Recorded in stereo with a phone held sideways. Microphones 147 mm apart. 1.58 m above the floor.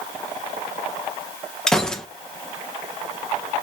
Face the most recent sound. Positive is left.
turn(degrees=5)  # may be behind; listen again after turning